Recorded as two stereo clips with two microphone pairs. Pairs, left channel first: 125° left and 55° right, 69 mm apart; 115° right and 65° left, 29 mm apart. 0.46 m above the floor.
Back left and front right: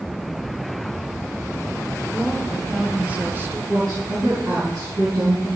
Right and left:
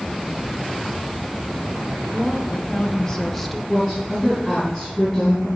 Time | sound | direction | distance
2.1 | a woman speaking | 155° right | 1.3 m
3.7 | a woman speaking | 35° right | 4 m